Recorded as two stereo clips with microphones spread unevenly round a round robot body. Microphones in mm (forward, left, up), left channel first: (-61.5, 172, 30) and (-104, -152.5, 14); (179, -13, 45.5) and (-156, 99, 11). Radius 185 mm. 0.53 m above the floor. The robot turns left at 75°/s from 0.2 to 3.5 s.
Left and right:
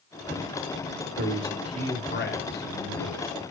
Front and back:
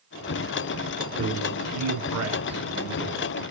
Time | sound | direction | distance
1.2 | a man speaking | 145° right | 0.9 m